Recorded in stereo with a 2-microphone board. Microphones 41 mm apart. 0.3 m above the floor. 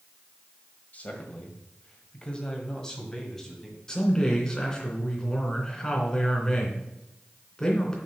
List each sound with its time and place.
0.9 s a man speaking: 40° left (ahead or behind), 1.9 m; by 3.8 s 10° left (ahead or behind), 2.5 m
3.9 s a man speaking: 15° left (ahead or behind), 3 m